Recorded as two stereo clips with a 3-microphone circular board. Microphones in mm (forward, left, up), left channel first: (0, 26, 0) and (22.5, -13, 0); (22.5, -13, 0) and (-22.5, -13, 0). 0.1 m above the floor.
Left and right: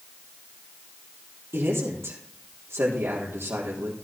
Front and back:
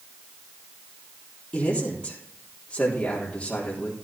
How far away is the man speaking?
About 3.5 m.